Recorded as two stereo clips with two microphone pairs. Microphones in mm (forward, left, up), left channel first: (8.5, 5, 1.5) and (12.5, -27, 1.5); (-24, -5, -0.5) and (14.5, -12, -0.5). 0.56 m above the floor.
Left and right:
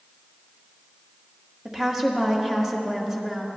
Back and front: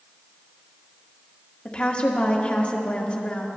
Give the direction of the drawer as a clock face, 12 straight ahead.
I don't hear a drawer.